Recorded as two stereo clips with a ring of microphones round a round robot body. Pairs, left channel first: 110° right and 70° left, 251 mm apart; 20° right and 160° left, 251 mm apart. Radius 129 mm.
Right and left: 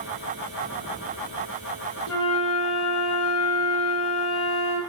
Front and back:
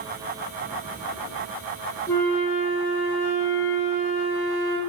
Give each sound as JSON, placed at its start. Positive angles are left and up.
{"t": 2.1, "sound": "a flute", "azimuth_deg": -105, "distance_m": 3.5}